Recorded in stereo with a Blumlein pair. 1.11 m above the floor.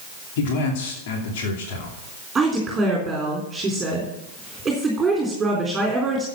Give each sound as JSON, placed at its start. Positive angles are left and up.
{"t": 0.4, "sound": "a man speaking", "azimuth_deg": 55, "distance_m": 2.5}
{"t": 2.4, "sound": "a woman speaking", "azimuth_deg": -15, "distance_m": 3.5}